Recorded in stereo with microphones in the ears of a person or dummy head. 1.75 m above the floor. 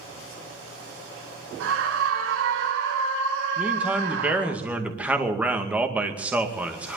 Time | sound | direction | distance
1.6 | a scream | 85° right | 3 m
3.6 | a man speaking | 10° right (ahead or behind) | 2 m